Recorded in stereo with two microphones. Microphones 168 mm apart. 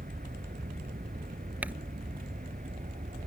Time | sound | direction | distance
0.0 | an aircraft | 55° right (ahead or behind) | ?
1.6 | crumpling | 10° right (ahead or behind) | ?